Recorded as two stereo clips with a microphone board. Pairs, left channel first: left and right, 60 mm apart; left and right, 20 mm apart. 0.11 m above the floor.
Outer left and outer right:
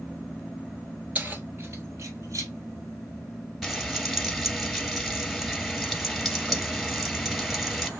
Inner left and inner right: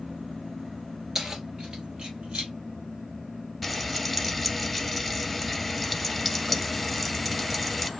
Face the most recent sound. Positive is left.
turn(degrees=5)  # may be behind; listen again after turning